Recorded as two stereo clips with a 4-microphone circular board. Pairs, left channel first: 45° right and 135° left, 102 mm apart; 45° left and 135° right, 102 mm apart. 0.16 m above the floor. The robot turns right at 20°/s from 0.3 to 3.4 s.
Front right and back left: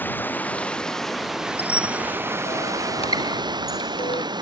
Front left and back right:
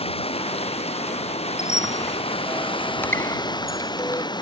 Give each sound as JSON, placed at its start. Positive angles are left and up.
{"t": 0.0, "sound": "running water", "azimuth_deg": 25}
{"t": 1.6, "sound": "a squeak", "azimuth_deg": -55}